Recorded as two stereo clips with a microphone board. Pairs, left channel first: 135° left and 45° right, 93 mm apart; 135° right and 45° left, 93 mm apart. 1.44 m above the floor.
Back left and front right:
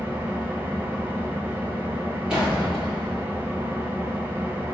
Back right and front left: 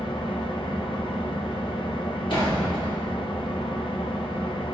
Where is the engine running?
115° right, 0.8 m.